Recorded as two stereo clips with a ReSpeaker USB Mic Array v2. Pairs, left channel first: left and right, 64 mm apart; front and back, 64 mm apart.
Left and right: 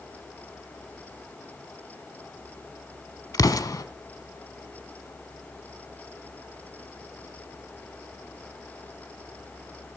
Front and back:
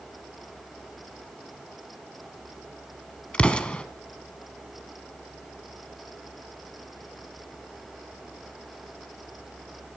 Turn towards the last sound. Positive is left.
turn(degrees=75)